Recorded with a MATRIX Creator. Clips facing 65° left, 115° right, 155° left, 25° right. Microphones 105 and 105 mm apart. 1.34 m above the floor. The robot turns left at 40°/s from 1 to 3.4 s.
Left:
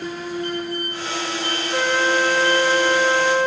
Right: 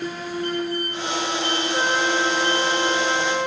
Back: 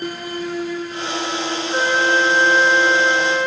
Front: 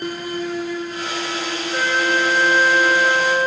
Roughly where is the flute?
Left.